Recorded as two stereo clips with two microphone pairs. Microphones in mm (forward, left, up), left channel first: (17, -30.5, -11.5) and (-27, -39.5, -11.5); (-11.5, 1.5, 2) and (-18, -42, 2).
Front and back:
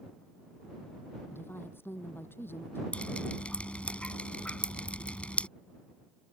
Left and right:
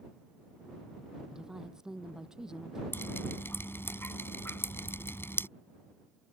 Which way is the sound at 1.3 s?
25° right.